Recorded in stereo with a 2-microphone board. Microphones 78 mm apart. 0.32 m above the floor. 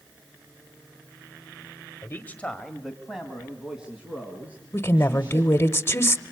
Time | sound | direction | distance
2.0 | a man speaking | 35° left (ahead or behind) | 1.1 m
4.7 | a woman speaking | 35° left (ahead or behind) | 0.9 m